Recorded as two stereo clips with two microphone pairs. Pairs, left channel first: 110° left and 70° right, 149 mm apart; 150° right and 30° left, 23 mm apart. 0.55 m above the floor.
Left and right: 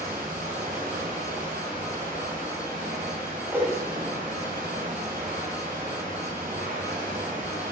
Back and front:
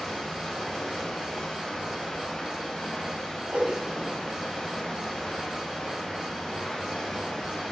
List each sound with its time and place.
0.0 s running water: 95° right, 2 m
3.5 s a whoosh: 5° left, 1.4 m